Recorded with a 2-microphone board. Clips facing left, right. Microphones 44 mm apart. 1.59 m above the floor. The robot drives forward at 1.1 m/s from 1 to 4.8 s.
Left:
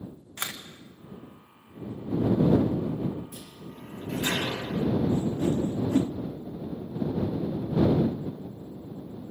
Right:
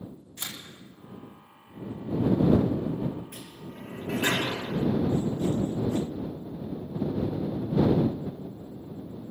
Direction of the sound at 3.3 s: 60° right (ahead or behind).